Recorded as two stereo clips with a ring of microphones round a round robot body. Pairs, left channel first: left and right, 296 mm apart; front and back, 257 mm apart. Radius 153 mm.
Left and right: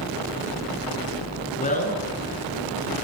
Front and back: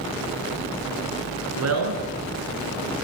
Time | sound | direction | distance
1.6 | a man speaking | 155° left | 6 m